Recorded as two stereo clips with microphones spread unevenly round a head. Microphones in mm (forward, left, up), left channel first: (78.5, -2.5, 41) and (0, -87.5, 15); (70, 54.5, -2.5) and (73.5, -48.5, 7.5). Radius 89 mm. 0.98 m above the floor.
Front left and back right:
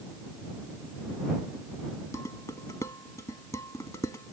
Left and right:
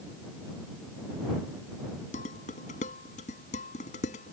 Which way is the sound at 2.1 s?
120° left.